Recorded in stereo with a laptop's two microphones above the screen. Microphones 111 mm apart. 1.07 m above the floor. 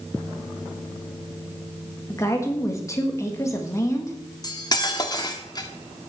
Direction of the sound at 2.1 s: 25° left (ahead or behind).